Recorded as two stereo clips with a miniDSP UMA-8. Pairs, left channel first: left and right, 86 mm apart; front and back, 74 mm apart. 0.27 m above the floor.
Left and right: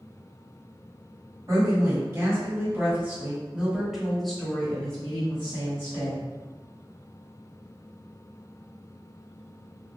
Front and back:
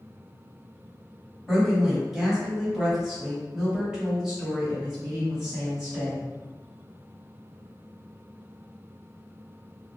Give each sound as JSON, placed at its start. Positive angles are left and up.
{"t": 1.5, "sound": "a woman speaking", "azimuth_deg": -95, "distance_m": 1.9}